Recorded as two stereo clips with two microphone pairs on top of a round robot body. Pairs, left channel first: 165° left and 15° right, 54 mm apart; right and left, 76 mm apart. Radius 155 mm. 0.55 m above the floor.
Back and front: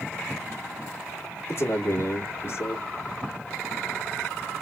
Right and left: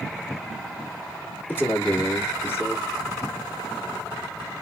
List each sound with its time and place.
1.5 s a man speaking: 150° right, 1.3 m